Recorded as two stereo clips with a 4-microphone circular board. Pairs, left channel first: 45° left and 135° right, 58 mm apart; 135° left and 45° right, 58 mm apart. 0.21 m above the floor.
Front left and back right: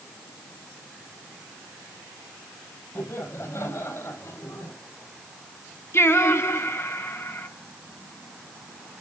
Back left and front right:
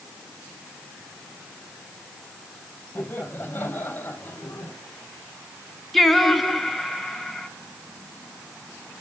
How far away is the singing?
About 1.9 m.